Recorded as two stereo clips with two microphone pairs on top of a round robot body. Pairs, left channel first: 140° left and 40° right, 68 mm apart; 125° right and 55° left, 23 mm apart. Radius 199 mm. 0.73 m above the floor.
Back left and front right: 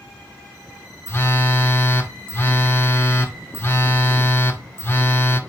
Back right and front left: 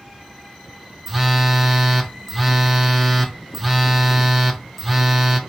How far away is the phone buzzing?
About 0.8 m.